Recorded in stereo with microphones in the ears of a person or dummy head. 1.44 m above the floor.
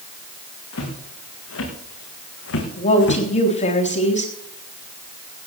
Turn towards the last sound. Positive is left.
turn(degrees=40)  # may be behind; listen again after turning